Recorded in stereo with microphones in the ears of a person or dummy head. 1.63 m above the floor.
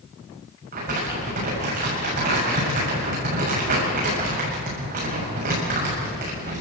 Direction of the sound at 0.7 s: 40° right (ahead or behind).